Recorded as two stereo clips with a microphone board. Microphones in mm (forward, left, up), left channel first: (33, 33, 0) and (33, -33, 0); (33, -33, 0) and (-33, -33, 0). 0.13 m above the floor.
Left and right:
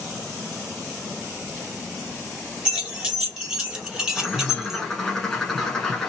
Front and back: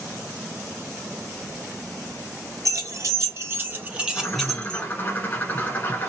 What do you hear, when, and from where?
2.6 s keys jangling: 165° right, 1.4 m; by 4.9 s 20° right, 0.8 m
4.2 s a bird: 15° left, 1.1 m